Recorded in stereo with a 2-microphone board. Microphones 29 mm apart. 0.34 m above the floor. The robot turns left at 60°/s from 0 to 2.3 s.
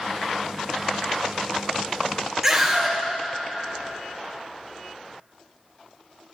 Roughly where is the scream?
Centre.